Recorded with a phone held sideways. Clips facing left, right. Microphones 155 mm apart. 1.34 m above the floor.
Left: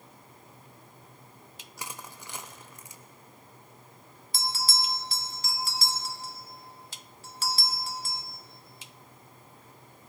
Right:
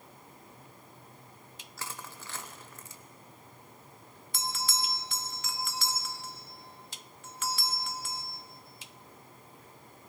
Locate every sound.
1.8 s crushing: 15° left (ahead or behind), 0.6 m
4.3 s a bell: 35° left (ahead or behind), 0.8 m